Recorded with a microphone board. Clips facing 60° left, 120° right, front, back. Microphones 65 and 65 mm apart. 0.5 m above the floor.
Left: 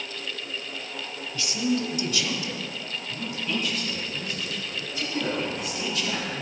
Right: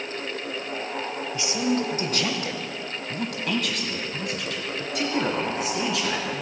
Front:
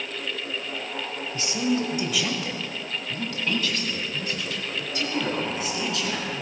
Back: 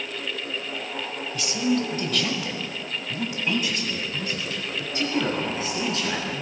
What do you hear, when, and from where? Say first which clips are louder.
1.3 s a man speaking: right 1 dB, back 1 dB; 50° right, 1.6 m; by 6.4 s 125° right, 5.5 m